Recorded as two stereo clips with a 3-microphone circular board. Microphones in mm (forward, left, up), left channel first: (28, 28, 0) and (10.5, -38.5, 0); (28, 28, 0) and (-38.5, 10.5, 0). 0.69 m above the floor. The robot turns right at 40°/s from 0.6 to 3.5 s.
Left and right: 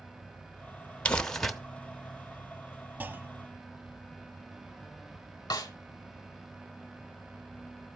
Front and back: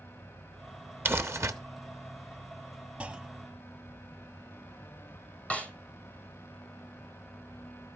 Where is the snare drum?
90° left, 1.4 m.